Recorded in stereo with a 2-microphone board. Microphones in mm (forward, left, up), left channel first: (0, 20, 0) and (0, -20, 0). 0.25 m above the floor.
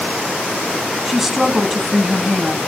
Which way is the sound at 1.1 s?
10° right (ahead or behind).